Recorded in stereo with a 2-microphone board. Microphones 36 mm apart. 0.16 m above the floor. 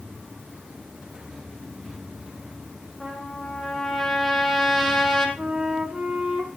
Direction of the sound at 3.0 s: Centre (ahead or behind).